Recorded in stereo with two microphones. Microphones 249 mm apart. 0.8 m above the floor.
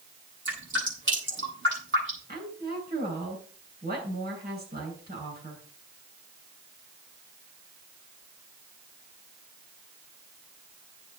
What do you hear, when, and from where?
0.5 s dripping: 50° right (ahead or behind), 9.5 m
2.3 s a woman speaking: 40° right (ahead or behind), 9.5 m